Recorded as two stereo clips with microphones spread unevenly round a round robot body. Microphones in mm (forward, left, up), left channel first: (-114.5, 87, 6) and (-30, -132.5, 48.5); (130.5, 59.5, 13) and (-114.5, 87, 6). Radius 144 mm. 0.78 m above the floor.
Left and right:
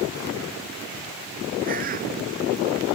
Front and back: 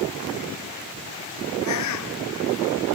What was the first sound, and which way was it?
A bird, 5° right.